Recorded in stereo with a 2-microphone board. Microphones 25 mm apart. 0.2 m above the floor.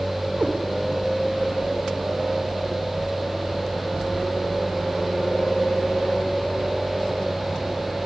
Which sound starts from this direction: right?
A cat meowing, at 0.4 s.